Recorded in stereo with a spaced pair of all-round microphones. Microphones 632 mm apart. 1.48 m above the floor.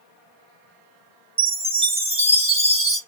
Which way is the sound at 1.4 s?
10° right (ahead or behind).